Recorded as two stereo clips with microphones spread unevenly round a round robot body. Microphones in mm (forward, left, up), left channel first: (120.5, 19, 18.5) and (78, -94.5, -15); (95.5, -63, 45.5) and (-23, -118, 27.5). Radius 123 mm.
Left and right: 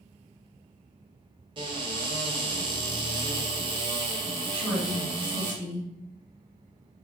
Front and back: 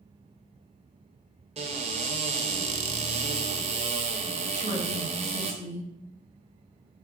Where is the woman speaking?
10° left, 1.9 m.